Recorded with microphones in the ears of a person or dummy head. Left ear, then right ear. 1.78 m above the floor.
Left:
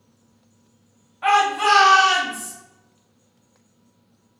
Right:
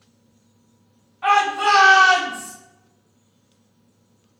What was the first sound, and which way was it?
A shout, 10° left (ahead or behind).